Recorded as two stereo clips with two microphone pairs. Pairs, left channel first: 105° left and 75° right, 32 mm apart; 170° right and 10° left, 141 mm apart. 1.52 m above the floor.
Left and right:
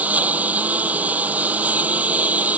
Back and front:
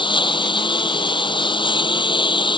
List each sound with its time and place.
0.0 s a lawn mower: 115° right